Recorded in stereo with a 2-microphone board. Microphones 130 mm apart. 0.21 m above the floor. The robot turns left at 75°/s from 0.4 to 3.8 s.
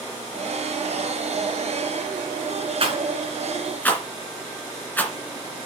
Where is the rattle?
50° right (ahead or behind), 2 m; by 5.1 s 10° left (ahead or behind), 2 m.